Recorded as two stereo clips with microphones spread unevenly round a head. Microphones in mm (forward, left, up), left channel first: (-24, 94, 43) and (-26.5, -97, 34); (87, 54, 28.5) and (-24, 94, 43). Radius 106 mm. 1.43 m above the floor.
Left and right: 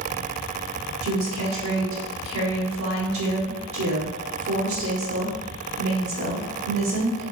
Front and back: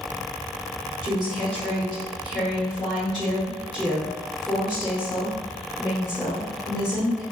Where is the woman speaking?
105° right, 1.3 m.